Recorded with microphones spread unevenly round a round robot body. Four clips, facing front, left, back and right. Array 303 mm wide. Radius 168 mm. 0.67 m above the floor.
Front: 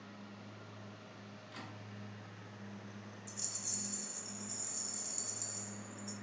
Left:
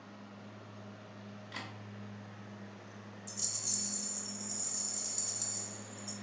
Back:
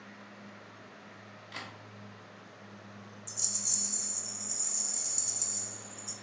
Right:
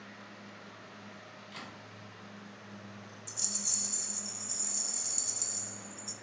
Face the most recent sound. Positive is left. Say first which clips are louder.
# right 1 dB, back 2 dB
turn(degrees=-130)